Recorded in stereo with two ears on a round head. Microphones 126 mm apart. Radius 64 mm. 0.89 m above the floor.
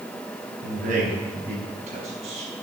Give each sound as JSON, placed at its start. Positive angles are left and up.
{"t": 0.6, "sound": "a man speaking", "side_deg": -65, "distance_m": 5.5}